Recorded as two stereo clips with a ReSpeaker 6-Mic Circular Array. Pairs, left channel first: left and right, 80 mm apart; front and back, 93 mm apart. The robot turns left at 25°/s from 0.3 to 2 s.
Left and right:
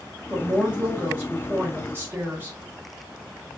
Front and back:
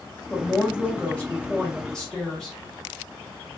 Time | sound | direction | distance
0.3 | a woman speaking | 35° right | 1.1 m